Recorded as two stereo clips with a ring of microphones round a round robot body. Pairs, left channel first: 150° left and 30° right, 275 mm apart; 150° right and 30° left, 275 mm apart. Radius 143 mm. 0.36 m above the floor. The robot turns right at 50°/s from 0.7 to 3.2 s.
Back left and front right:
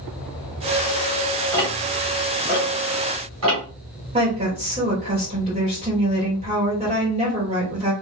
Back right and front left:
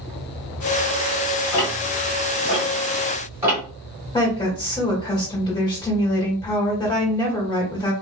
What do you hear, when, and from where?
1.5 s ticking: 135° right, 1.6 m; by 3.6 s 50° right, 1.6 m
4.1 s a woman speaking: 85° right, 1.8 m